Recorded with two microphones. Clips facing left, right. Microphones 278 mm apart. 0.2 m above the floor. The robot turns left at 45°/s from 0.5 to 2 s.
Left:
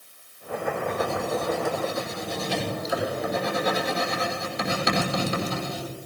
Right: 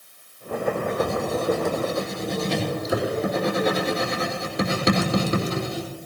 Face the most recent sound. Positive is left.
turn(degrees=-60)  # may be behind; listen again after turning